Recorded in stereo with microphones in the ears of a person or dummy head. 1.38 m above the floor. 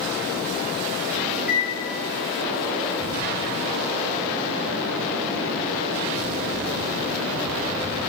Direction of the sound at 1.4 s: 10° right (ahead or behind).